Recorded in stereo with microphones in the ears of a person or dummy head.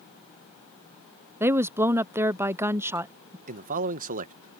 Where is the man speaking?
55° right (ahead or behind).